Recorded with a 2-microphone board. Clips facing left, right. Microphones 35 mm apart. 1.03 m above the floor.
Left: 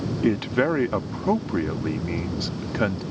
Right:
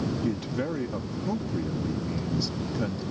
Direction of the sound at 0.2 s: 60° left (ahead or behind).